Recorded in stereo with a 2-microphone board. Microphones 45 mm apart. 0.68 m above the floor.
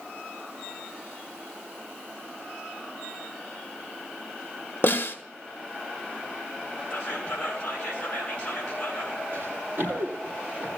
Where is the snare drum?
50° left (ahead or behind), 1.6 m.